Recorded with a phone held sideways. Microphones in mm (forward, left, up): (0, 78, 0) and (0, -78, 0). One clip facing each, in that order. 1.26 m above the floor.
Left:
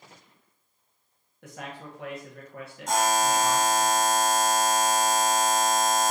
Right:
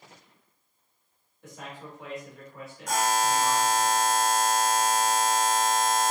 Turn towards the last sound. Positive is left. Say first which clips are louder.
# left 2 dB
turn(degrees=25)  # may be behind; listen again after turning